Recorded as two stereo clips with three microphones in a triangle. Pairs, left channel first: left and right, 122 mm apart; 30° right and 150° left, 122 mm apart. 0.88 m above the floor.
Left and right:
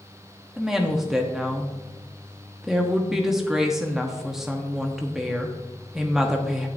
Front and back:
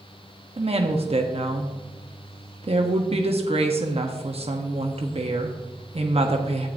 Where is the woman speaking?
175° right, 1.0 m.